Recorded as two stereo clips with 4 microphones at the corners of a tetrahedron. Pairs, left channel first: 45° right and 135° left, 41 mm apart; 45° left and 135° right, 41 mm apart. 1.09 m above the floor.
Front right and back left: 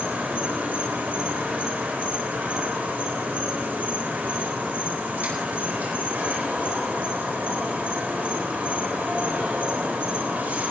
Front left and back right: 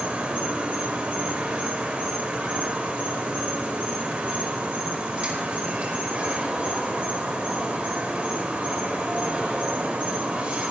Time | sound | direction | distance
0.0 | an insect | 175° left | 4.5 m